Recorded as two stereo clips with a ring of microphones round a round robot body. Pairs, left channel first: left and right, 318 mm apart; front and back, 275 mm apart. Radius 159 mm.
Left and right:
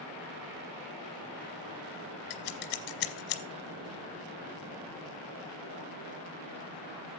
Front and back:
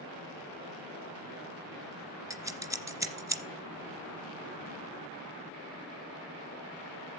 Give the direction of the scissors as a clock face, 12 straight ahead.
9 o'clock.